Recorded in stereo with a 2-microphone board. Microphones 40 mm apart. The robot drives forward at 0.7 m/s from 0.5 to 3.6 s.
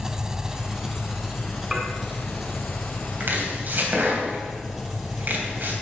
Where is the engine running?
15° right (ahead or behind), 0.8 m; by 5.8 s 5° right (ahead or behind), 3 m.